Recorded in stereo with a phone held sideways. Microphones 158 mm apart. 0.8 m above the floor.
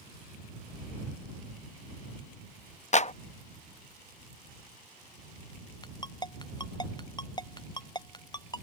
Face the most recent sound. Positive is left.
turn(degrees=25)  # may be behind; listen again after turning